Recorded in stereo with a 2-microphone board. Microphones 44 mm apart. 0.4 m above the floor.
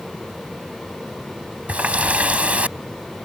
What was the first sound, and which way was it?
A running tap, 30° right (ahead or behind).